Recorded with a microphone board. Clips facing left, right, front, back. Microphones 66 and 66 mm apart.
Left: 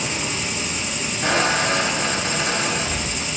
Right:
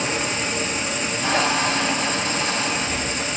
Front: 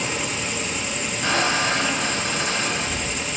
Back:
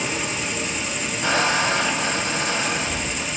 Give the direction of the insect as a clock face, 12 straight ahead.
3 o'clock.